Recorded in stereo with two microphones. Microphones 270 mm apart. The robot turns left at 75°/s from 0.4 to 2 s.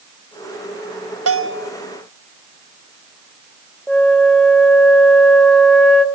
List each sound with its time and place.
1.3 s a bell: 120° right, 0.9 m; by 1.7 s 150° right, 0.9 m
3.9 s a flute: 5° left (ahead or behind), 1.4 m